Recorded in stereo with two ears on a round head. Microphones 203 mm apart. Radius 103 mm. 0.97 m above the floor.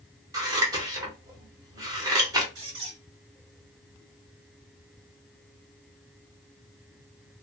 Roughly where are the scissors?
Centre.